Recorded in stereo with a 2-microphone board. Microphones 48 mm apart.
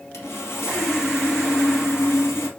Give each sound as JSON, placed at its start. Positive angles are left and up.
{"t": 0.1, "sound": "sawing", "side_deg": 80, "distance_m": 2.5}